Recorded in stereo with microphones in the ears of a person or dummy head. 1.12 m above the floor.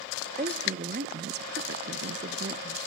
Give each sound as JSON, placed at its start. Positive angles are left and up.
{"t": 0.4, "sound": "a woman speaking", "side_deg": -35, "distance_m": 0.9}